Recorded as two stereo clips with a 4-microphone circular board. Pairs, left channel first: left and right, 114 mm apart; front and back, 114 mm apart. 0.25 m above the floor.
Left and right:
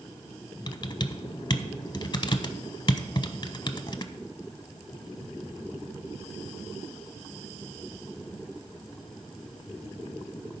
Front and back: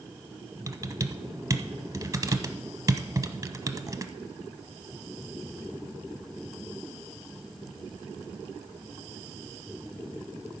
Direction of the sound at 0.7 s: 125° left.